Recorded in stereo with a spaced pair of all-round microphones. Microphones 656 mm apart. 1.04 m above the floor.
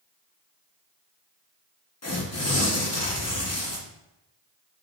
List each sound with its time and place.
2.0 s tearing paper: 25° left (ahead or behind), 0.8 m